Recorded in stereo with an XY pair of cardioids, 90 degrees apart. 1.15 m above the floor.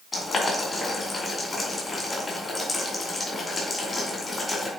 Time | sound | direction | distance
0.1 | boiling | 35° left | 3.5 m